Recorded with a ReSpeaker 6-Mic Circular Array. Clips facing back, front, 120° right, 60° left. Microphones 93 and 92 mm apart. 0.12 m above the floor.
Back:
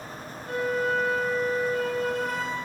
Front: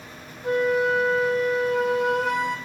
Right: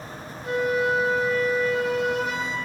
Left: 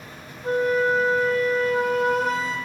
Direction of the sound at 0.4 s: 10° left.